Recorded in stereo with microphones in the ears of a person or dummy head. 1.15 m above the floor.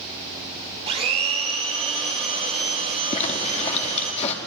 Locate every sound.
0.9 s a blender: 30° right (ahead or behind), 2.0 m
3.1 s a zipper: 35° left (ahead or behind), 1.4 m